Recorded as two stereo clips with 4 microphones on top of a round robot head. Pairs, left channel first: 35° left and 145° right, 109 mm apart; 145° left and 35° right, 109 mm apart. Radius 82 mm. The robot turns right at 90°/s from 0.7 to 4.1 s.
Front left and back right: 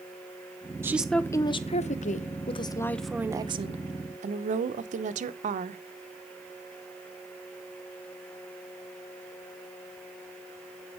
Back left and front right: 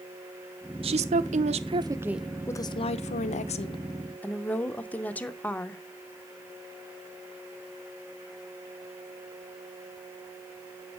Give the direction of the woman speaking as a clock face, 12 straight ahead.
2 o'clock.